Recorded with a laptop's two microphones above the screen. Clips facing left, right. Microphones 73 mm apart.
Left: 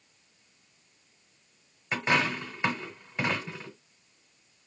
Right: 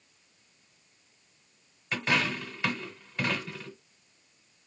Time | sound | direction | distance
1.9 | a dropped coin | 20° left (ahead or behind) | 1.4 m